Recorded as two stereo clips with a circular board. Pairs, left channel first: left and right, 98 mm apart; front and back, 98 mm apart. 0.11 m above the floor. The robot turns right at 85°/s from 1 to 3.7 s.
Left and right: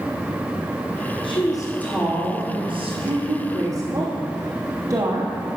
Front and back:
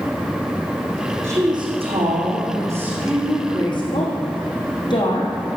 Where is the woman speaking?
115° left, 4 m; by 5.3 s 35° right, 4 m.